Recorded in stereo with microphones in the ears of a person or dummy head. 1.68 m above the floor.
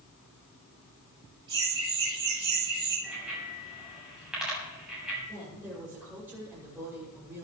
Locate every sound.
1.5 s laughter: 25° right (ahead or behind), 8 m
3.0 s a bicycle bell: 5° right (ahead or behind), 8 m
5.3 s a woman speaking: 10° right (ahead or behind), 9 m